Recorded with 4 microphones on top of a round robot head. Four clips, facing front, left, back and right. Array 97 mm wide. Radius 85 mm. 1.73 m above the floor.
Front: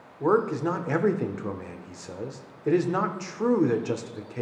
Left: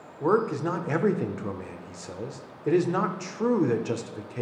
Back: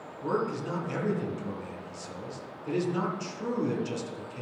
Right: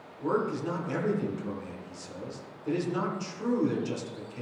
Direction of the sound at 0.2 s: 40° left.